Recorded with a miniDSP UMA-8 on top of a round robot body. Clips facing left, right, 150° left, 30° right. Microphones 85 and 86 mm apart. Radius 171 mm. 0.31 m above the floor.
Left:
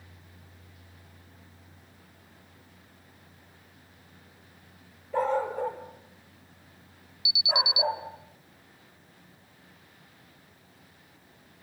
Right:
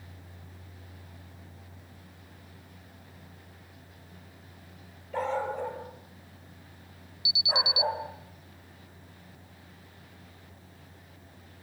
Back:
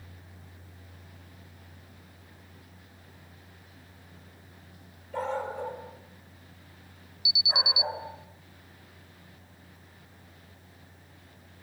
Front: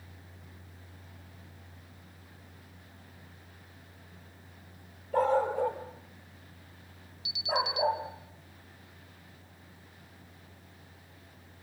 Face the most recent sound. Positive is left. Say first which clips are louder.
# left 1 dB, front 3 dB
turn(degrees=-130)